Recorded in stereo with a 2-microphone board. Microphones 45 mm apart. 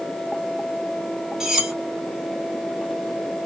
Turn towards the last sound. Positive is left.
turn(degrees=-10)  # may be behind; listen again after turning